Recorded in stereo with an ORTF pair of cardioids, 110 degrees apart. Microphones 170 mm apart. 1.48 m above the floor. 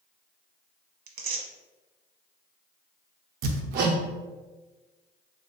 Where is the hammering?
65° right, 0.6 m.